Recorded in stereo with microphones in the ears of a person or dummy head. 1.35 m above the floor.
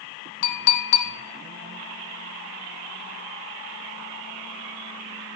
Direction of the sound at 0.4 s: 50° left (ahead or behind).